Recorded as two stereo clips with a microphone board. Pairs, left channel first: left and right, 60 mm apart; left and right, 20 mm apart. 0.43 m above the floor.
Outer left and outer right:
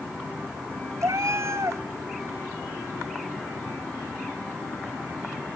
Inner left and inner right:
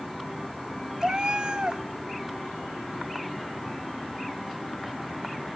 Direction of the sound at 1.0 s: 50° right (ahead or behind).